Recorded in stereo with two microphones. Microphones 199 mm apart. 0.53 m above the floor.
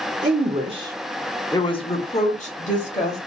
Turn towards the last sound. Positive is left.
turn(degrees=40)  # may be behind; listen again after turning